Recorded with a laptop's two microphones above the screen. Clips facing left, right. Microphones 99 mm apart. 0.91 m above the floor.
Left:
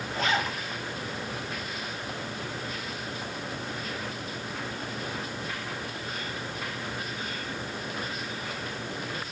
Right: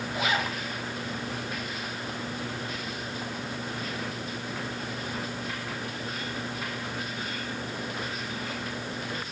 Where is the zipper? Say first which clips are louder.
Left 1 dB; 10° right (ahead or behind), 1.8 m.